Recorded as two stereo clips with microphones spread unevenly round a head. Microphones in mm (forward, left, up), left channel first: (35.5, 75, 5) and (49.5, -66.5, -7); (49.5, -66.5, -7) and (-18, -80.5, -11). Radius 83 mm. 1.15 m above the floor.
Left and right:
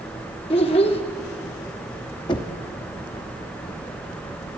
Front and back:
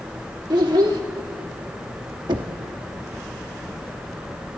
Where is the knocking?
160° left, 1.1 m.